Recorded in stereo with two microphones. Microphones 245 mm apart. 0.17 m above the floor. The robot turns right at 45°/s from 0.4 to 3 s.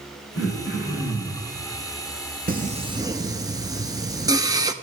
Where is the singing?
35° right (ahead or behind), 0.7 m; by 4.7 s 15° right (ahead or behind), 0.7 m.